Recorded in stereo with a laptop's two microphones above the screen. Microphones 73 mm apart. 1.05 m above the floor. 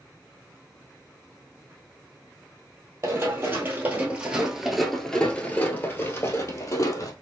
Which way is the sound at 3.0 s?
35° right (ahead or behind).